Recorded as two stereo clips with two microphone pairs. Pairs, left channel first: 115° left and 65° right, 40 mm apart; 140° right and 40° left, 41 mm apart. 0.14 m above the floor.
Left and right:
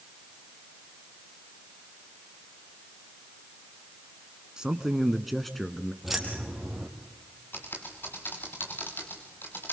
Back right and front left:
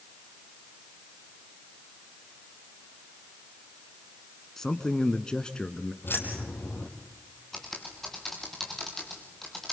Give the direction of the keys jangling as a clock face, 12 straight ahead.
5 o'clock.